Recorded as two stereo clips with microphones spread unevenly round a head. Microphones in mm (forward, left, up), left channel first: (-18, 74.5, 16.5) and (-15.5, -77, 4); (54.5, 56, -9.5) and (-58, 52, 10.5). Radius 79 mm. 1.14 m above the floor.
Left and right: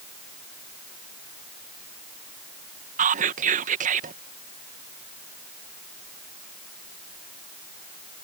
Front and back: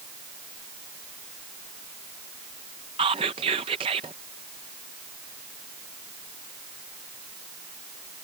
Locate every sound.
3.0 s whispering: 120° right